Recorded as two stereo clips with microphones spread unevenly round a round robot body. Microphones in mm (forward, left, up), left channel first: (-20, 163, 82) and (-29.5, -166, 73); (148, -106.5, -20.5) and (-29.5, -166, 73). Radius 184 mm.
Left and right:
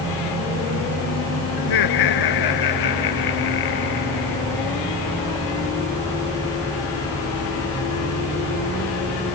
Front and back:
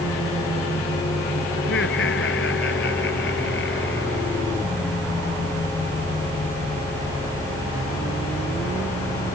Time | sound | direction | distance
1.6 | laughter | 65° left | ?